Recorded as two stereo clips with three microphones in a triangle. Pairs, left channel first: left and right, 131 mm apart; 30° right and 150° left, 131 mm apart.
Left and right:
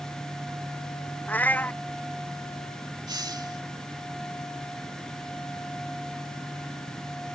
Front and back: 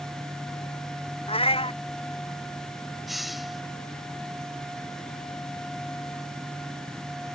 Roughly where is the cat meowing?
Ahead.